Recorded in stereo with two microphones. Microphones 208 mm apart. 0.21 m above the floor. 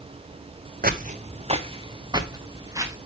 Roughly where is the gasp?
No gasp in this recording.